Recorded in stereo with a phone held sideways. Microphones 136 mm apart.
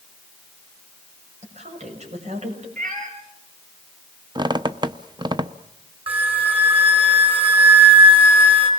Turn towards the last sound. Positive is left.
turn(degrees=-45)  # may be behind; listen again after turning